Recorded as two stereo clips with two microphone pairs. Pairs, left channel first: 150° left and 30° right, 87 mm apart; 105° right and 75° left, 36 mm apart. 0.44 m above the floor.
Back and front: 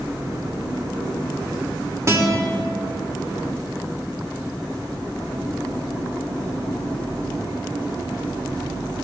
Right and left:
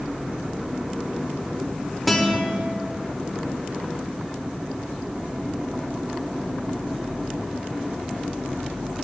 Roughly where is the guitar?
Ahead.